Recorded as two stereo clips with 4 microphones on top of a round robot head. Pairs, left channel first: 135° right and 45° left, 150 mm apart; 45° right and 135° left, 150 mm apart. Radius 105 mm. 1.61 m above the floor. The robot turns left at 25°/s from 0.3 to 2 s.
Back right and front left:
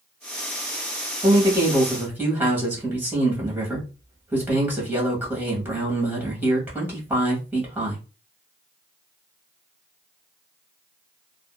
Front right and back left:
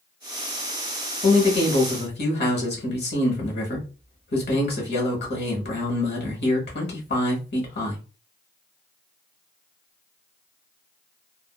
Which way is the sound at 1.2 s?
15° right.